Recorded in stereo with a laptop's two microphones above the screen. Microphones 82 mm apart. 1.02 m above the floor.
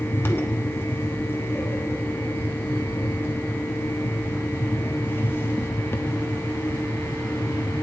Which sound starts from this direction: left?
A fan, at 0.0 s.